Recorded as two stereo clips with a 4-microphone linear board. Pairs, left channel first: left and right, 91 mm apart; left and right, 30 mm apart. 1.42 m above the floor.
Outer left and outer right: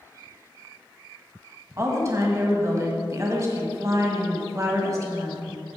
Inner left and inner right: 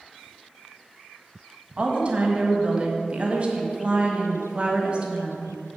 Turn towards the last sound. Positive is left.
turn(degrees=-35)  # may be behind; listen again after turning